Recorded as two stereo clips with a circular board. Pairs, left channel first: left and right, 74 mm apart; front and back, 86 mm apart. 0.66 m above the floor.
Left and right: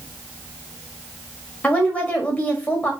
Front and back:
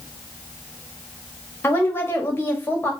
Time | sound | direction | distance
1.6 | a woman speaking | 40° left | 1.3 m